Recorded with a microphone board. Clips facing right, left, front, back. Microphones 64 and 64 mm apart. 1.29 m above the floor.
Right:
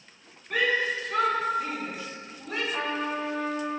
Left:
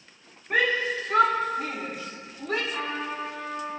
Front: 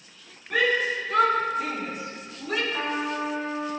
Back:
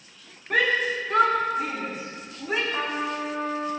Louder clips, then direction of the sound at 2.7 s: Right 2 dB, even; 170° right.